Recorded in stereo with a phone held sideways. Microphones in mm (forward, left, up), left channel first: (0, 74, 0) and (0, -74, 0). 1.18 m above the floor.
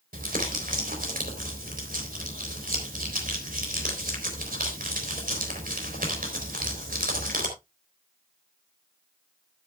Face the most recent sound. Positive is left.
turn(degrees=-75)  # may be behind; listen again after turning